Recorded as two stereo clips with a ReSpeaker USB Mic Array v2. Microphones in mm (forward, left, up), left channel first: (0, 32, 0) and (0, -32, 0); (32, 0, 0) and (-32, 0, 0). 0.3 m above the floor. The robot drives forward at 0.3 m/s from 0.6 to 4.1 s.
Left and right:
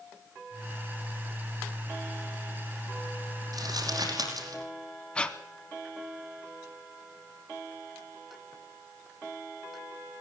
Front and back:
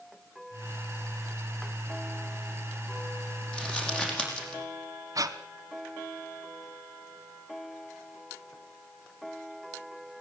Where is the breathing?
165° left, 1.1 m.